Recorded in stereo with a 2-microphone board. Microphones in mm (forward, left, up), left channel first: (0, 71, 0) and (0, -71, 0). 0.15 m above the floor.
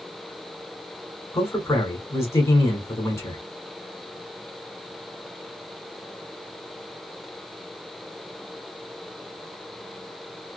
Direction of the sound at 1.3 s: 20° left (ahead or behind).